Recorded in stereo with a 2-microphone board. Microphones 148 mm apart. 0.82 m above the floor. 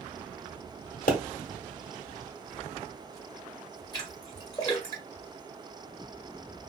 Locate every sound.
1.1 s a pop: 70° left (ahead or behind), 0.9 m
3.9 s a splash: 25° left (ahead or behind), 1.1 m